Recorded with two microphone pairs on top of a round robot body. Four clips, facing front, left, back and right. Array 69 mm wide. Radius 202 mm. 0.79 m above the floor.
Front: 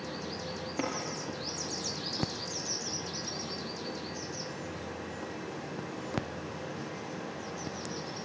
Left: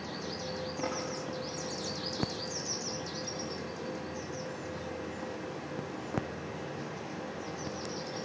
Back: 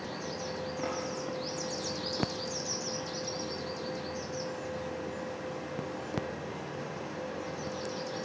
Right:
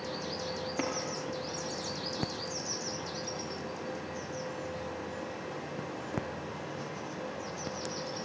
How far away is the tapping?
About 5 m.